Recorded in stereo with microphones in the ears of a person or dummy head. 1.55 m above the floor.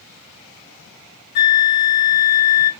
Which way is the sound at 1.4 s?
35° left (ahead or behind).